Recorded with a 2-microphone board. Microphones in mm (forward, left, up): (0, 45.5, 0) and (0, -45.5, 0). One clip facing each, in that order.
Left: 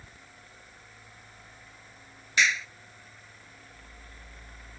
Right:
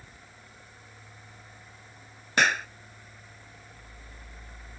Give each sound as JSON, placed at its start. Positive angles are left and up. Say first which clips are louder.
{"t": 2.4, "sound": "a clap", "louder": "right 3 dB", "side_deg": -55}